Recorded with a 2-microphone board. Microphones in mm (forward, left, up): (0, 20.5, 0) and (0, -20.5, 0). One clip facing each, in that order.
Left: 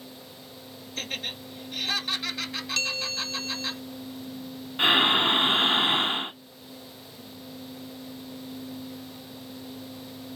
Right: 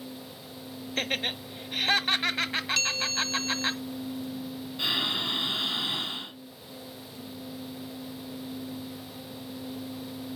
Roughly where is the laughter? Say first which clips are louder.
Right 4 dB; right.